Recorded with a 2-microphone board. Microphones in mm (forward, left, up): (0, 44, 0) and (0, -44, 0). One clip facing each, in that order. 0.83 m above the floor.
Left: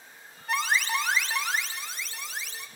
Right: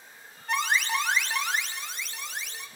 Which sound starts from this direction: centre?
An alarm, at 0.5 s.